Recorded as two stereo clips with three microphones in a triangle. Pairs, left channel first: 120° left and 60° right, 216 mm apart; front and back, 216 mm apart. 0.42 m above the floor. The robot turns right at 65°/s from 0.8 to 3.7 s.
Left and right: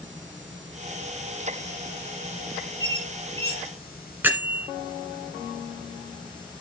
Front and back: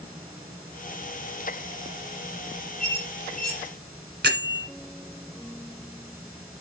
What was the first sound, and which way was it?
A squeak, 90° right.